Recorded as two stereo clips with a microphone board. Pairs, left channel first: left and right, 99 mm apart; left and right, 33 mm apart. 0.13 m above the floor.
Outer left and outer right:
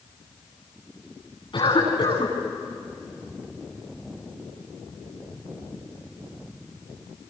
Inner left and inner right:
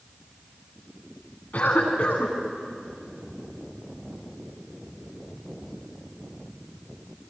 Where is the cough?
55° left (ahead or behind), 9.5 m.